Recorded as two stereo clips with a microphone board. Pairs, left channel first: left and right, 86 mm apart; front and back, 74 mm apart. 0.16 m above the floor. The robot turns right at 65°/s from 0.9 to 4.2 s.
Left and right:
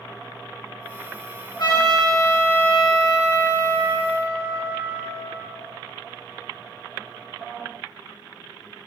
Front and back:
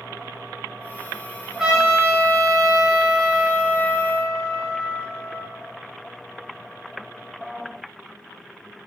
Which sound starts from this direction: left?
A trumpet, at 1.6 s.